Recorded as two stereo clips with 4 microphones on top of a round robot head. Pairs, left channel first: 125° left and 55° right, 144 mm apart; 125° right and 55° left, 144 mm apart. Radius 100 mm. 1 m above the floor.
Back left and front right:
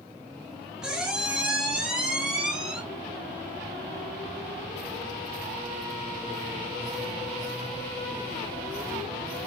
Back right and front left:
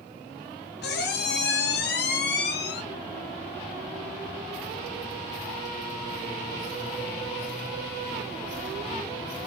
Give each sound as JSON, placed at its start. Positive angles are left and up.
{"t": 0.8, "sound": "a squeak", "azimuth_deg": -140, "distance_m": 0.6}